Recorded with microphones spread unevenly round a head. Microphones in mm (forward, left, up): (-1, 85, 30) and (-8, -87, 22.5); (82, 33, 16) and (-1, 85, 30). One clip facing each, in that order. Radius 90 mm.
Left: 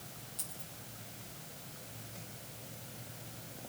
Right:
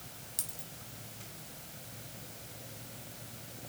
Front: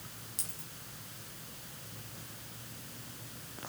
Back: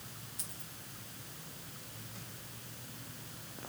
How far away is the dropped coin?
About 4.5 m.